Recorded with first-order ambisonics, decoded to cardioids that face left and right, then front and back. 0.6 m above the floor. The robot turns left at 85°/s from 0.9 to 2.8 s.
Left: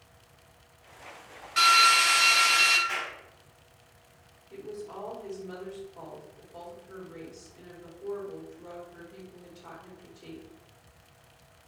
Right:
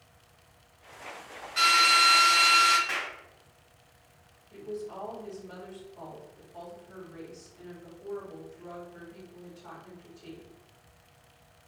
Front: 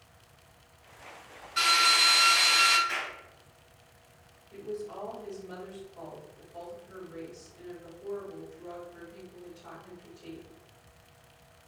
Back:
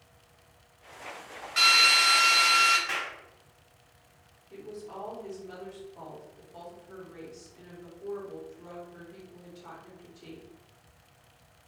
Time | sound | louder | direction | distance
1.6 | a drill | left 1 dB, back 3 dB | 140° left | 1.0 m
2.9 | a clap | right 1 dB, back 1 dB | 145° right | 0.8 m
4.5 | a woman speaking | right 2 dB, front 3 dB | 130° left | 1.4 m